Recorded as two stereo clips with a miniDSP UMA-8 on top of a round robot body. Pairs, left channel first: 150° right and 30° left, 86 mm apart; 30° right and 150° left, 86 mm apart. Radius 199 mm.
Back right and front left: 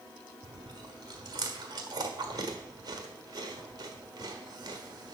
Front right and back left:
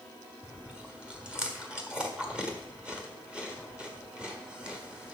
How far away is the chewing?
About 1.5 m.